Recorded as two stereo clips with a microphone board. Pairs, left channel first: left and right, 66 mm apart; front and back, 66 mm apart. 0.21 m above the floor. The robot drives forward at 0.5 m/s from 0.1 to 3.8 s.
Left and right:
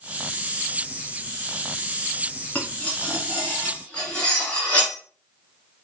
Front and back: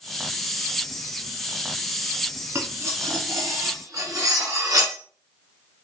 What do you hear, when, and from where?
2.5 s cutlery clinking: 145° left, 1.1 m; by 5.0 s 160° left, 1.6 m